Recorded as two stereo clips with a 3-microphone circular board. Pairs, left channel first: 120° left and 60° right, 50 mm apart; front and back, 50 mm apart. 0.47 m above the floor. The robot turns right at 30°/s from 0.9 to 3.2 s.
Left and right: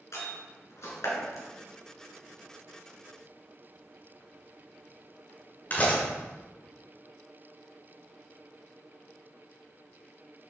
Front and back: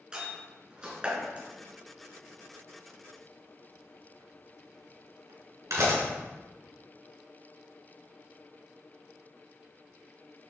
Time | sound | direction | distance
0.1 | a door slam | 105° left | 4.5 m